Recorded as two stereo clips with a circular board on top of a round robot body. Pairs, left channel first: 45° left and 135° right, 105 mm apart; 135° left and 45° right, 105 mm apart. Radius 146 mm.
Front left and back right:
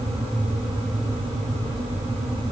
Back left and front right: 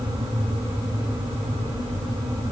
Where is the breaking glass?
No breaking glass in this recording.